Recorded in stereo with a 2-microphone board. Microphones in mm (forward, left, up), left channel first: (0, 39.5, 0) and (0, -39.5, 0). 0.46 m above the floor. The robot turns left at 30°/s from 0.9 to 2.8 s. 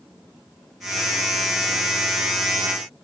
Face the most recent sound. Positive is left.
No sound to turn to.